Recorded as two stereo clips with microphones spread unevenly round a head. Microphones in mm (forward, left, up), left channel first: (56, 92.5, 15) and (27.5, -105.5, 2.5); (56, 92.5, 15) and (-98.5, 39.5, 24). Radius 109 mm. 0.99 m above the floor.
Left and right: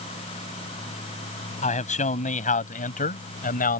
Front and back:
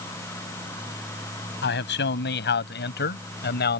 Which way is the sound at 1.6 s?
30° left.